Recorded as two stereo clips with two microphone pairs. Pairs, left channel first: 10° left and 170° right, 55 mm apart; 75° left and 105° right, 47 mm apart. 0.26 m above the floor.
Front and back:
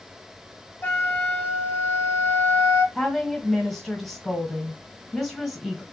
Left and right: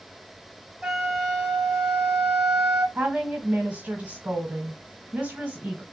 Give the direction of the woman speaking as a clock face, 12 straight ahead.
2 o'clock.